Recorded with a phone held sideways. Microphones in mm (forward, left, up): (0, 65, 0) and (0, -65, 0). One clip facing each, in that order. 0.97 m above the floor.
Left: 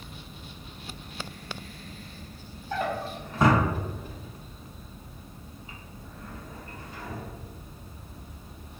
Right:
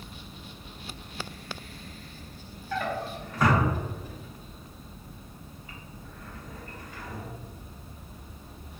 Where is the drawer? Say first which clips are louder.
Left 1 dB; 25° left (ahead or behind), 0.6 m.